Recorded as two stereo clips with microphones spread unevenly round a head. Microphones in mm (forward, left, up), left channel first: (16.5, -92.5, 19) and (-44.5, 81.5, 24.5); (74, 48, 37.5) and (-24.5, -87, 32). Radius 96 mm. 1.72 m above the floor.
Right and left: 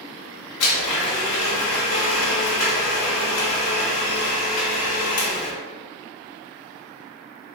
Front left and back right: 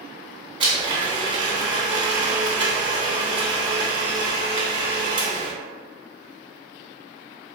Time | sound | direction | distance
0.6 | a blender | 60° right | 0.8 m